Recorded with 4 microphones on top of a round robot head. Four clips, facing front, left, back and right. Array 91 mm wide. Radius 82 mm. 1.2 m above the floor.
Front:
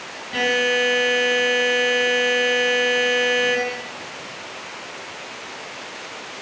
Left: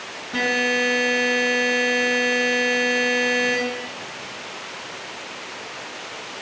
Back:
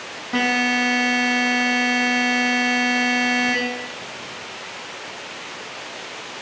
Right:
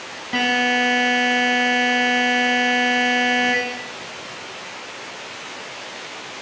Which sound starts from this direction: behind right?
A buzzer, at 0.3 s.